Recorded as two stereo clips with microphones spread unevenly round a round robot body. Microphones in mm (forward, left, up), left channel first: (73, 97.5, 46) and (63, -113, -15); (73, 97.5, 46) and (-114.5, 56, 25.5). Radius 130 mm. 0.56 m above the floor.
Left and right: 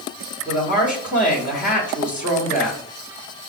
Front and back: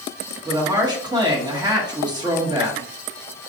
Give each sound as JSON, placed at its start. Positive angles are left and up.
{"t": 0.5, "sound": "a woman speaking", "azimuth_deg": 145, "distance_m": 1.4}